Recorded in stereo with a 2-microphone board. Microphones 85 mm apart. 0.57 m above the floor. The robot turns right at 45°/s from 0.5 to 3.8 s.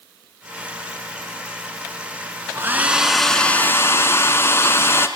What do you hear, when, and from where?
2.5 s a hair dryer: 30° right, 1.8 m; by 5.1 s 30° left, 1.8 m